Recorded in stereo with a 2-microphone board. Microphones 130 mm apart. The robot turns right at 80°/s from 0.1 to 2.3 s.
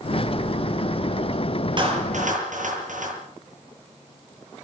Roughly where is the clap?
Right.